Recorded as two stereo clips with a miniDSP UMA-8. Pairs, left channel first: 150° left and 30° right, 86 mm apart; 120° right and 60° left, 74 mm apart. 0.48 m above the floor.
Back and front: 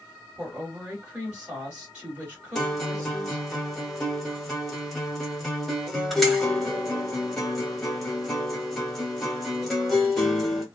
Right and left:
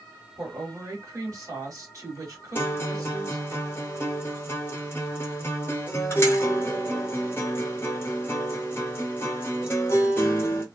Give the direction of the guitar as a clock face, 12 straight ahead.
4 o'clock.